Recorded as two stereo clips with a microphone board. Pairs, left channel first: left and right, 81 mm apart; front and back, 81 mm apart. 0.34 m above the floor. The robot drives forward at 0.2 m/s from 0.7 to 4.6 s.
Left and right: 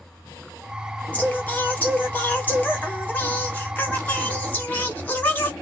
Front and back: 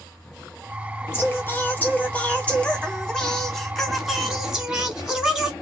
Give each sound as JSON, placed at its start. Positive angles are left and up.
{"t": 1.1, "sound": "singing", "azimuth_deg": 30, "distance_m": 1.1}